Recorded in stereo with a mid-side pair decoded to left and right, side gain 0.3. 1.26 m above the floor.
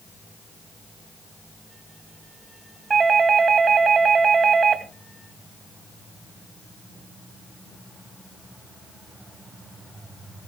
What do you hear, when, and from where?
2.9 s a doorbell: 55° right, 2.5 m